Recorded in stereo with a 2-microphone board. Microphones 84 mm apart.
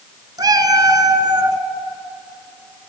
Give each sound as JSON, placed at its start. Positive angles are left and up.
{"t": 0.4, "sound": "a cat meowing", "side_deg": -50, "distance_m": 1.1}